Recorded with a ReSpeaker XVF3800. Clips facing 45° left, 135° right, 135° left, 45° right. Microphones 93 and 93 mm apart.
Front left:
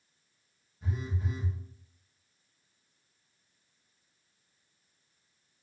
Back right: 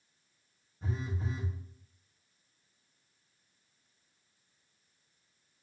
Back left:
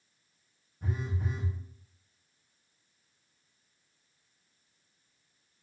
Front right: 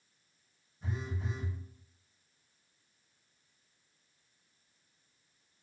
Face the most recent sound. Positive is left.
turn(degrees=170)